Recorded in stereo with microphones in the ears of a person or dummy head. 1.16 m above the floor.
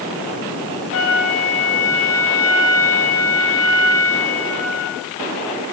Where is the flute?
85° left, 6.5 m.